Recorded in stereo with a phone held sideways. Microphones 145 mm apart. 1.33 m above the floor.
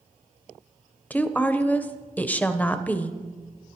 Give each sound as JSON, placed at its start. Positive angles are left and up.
{"t": 1.1, "sound": "a woman speaking", "side_deg": 10, "distance_m": 0.6}